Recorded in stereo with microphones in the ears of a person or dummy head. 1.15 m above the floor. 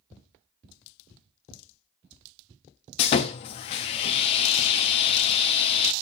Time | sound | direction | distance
3.0 | sawing | 30° left (ahead or behind) | 0.6 m